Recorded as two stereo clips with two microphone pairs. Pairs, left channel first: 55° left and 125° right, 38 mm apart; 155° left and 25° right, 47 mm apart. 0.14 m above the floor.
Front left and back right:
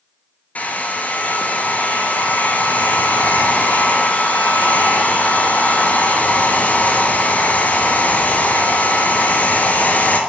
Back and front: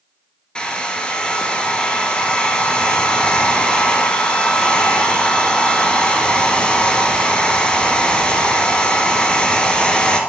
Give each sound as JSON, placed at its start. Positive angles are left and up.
{"t": 0.6, "sound": "a hair dryer", "azimuth_deg": 90, "distance_m": 0.6}